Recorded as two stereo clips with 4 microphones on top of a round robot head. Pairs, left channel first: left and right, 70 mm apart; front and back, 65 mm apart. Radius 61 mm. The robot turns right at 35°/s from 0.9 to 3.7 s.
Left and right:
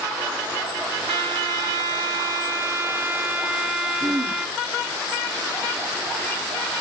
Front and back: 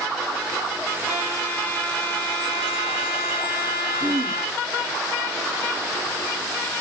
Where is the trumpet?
105° right, 2.0 m; by 4.6 s 15° right, 2.0 m.